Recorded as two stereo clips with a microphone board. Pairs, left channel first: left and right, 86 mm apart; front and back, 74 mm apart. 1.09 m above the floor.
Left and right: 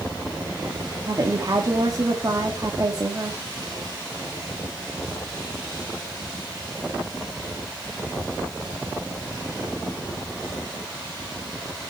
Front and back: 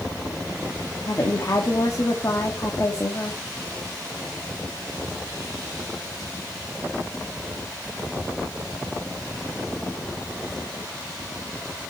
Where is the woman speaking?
45° right, 1.7 m.